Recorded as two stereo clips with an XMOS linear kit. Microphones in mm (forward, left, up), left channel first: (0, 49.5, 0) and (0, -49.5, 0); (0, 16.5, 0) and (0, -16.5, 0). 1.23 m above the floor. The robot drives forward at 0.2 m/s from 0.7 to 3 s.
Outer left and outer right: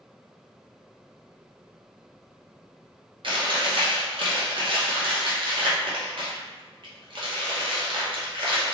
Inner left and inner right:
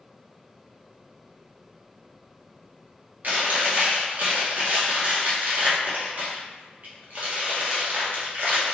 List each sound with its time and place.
3.2 s chewing: 55° right (ahead or behind), 0.7 m